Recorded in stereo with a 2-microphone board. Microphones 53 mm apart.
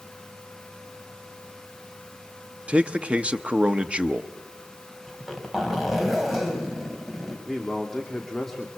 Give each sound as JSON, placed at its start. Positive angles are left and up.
{"t": 2.7, "sound": "a man speaking", "side_deg": -20, "distance_m": 0.9}
{"t": 5.1, "sound": "a zipper", "side_deg": 0, "distance_m": 4.0}
{"t": 7.5, "sound": "a man speaking", "side_deg": 5, "distance_m": 2.0}